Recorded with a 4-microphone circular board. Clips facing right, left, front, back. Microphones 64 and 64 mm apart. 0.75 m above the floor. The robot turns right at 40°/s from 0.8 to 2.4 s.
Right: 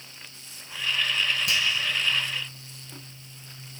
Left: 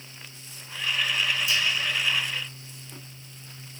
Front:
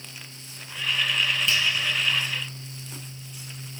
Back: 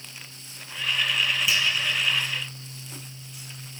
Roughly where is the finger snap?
Right.